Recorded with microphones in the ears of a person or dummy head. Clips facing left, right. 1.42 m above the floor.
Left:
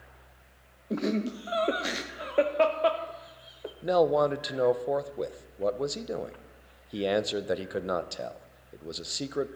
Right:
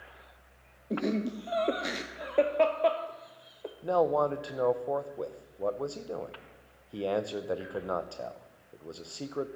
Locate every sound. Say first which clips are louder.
0.9 s laughter: left 1 dB; centre (ahead or behind), 0.6 m
3.8 s a man speaking: left 3 dB; 25° left (ahead or behind), 0.6 m